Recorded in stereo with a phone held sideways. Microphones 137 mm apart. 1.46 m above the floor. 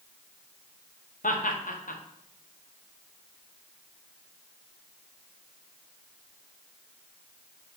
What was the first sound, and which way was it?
Laughter, 80° left.